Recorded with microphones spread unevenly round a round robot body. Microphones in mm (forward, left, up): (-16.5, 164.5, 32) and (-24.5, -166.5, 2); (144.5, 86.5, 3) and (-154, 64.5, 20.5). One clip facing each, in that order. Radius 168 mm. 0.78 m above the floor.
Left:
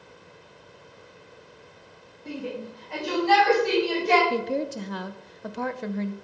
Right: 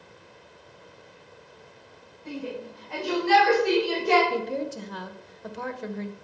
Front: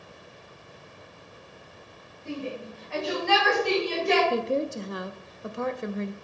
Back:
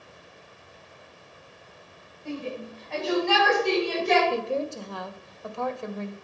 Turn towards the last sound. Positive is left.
turn(degrees=70)